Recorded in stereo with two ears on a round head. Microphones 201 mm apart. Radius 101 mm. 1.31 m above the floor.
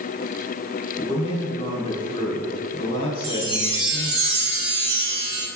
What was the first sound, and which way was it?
A man speaking, 25° left (ahead or behind).